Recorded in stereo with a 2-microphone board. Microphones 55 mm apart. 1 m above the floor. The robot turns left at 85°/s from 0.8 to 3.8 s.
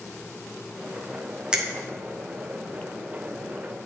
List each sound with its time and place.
1.5 s a finger snap: 15° right (ahead or behind), 0.8 m; by 1.6 s 5° right (ahead or behind), 0.8 m